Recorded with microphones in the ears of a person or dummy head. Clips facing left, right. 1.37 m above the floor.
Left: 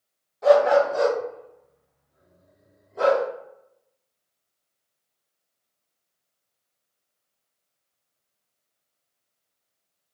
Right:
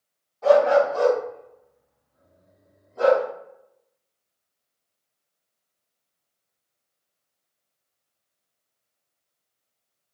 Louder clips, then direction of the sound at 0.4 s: Even; 25° left (ahead or behind).